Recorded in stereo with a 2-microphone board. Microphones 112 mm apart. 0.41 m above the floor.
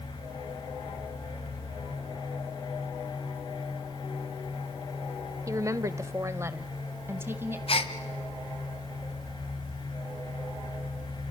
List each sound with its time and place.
5.5 s a woman speaking: 25° right (ahead or behind), 0.9 m; by 7.6 s 20° right (ahead or behind), 2.5 m
7.7 s a gasp: 55° left (ahead or behind), 1.2 m